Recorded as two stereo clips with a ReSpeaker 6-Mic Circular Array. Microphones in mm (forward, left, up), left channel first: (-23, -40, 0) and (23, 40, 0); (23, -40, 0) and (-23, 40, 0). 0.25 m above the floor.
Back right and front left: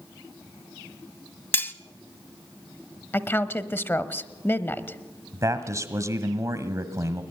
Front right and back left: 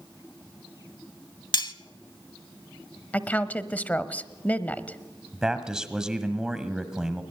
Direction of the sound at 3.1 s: 105° right.